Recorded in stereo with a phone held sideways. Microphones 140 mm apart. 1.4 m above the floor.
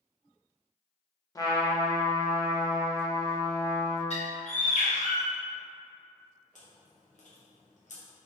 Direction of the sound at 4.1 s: 55° left (ahead or behind).